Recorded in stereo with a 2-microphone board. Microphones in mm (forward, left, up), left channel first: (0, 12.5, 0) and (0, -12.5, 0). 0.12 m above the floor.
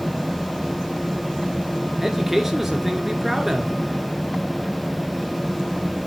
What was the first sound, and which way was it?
A man speaking, 15° right (ahead or behind).